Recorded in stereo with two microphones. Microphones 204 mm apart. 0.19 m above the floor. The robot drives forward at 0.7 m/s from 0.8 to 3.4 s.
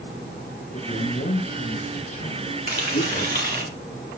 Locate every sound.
0.7 s a man speaking: 55° left (ahead or behind), 5.5 m; by 3.7 s 40° left (ahead or behind), 6.5 m
2.7 s frying: 55° right (ahead or behind), 3 m; by 3.6 s 50° right (ahead or behind), 3 m